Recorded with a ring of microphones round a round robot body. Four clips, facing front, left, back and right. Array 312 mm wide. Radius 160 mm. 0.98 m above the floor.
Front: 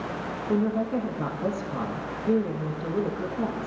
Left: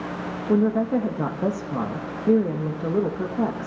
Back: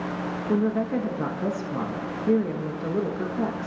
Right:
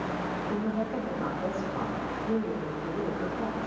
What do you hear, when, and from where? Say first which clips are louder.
0.5 s a woman speaking: left 13 dB, back 1 dB; 100° left, 1.4 m